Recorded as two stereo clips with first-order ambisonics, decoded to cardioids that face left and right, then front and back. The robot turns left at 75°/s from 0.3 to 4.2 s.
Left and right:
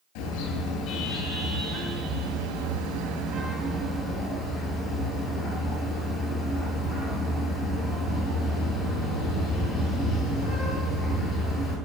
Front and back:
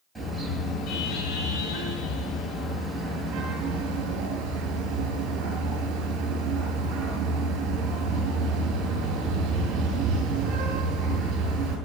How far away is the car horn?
About 9 m.